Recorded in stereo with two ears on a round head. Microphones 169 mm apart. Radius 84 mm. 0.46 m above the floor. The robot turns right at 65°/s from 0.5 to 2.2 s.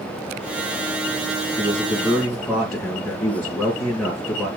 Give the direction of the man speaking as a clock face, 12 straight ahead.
1 o'clock.